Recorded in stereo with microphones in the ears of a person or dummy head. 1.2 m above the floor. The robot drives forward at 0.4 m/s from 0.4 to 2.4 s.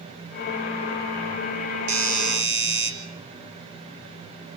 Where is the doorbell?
70° right (ahead or behind), 4 m.